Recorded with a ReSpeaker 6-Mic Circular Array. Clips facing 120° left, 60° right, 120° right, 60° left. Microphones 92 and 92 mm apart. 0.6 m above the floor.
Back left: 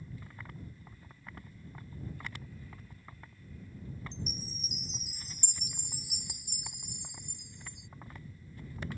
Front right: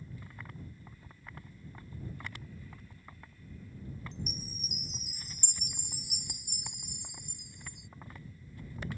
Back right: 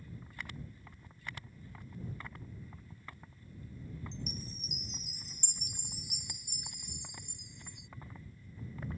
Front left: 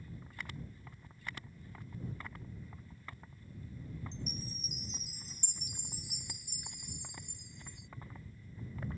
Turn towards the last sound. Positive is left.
turn(degrees=-95)